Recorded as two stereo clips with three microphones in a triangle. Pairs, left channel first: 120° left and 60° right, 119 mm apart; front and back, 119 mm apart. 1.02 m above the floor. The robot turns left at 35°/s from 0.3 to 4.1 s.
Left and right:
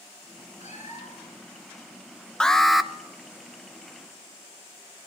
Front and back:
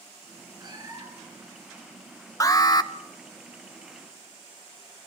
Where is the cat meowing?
130° left, 7 m; by 1.4 s 100° left, 7 m.